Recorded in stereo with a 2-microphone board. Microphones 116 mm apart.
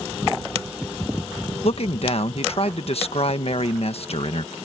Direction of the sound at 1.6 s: 60° left (ahead or behind).